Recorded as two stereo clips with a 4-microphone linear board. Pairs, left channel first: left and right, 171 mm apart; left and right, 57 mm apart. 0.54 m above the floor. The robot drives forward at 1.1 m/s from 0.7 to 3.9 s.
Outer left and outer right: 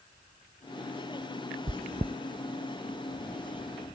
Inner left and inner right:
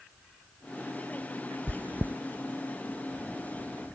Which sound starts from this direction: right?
Chewing, at 1.7 s.